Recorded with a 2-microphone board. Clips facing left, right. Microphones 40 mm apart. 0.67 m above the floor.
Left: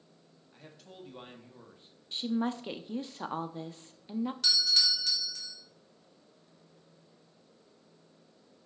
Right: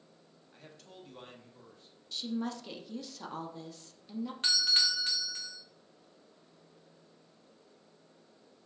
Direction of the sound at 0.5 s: Centre (ahead or behind).